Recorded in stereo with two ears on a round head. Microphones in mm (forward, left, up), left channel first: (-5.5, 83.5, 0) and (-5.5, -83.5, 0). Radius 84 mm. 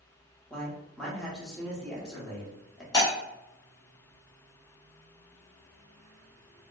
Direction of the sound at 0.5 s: 5° left (ahead or behind).